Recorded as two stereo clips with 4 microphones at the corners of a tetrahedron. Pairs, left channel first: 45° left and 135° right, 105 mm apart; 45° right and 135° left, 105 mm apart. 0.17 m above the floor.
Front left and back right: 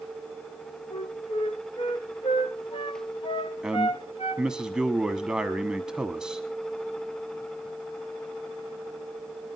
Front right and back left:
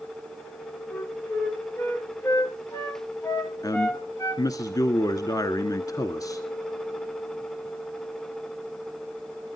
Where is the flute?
20° left, 3 m.